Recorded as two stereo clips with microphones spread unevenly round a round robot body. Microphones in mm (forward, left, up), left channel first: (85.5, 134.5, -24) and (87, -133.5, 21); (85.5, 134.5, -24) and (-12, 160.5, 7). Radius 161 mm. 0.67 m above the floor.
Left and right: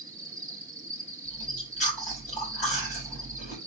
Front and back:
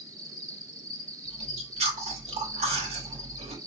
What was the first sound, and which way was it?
An insect, 160° right.